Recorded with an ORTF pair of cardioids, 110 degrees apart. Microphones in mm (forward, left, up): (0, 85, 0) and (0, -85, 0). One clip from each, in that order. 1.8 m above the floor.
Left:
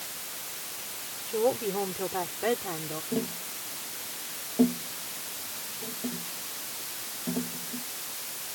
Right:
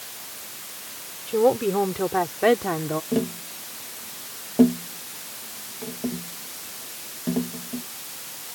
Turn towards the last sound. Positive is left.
turn(degrees=-45)